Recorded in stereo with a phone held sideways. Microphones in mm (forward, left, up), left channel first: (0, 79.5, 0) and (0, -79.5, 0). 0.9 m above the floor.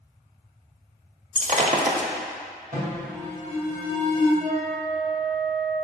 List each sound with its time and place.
1.4 s breaking glass: 50° right (ahead or behind), 0.9 m
2.7 s an alarm: 55° right (ahead or behind), 3 m
4.4 s a flute: 50° right (ahead or behind), 2 m